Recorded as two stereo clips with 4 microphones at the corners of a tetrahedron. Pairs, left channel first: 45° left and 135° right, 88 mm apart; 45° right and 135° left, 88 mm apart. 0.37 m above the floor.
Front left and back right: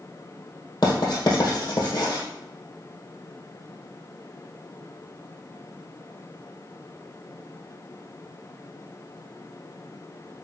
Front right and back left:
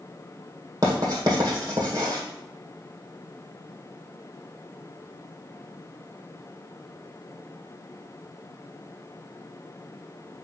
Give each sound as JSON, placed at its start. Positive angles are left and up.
{"t": 0.8, "sound": "writing", "azimuth_deg": 85, "distance_m": 2.0}